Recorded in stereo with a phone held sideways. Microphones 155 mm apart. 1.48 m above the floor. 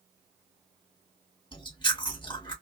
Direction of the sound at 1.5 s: 30° left (ahead or behind).